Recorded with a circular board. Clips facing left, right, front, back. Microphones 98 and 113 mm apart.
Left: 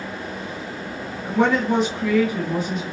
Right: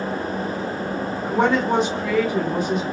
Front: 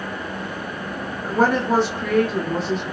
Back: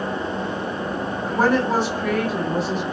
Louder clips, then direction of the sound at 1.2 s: Even, front 1 dB; 80° right.